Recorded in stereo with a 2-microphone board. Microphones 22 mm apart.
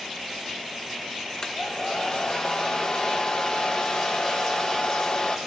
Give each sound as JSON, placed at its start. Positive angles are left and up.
{"t": 1.4, "sound": "a hair dryer", "side_deg": 40, "distance_m": 1.2}